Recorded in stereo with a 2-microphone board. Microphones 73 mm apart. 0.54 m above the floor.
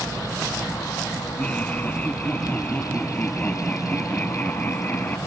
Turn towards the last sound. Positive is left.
turn(degrees=25)  # may be behind; listen again after turning